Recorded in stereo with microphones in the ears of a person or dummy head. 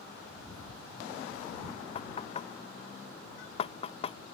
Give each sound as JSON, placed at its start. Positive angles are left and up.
{"t": 1.9, "sound": "knocking", "side_deg": 25}